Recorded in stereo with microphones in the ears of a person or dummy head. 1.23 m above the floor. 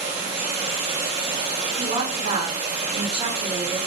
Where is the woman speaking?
35° right (ahead or behind), 3.5 m.